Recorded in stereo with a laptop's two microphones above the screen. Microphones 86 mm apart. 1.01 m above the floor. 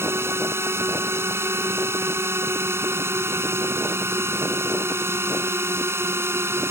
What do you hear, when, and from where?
0.0 s a drone: 30° right (ahead or behind)